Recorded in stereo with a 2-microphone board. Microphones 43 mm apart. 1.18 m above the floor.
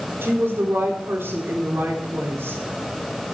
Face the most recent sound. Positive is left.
turn(degrees=-70)  # may be behind; listen again after turning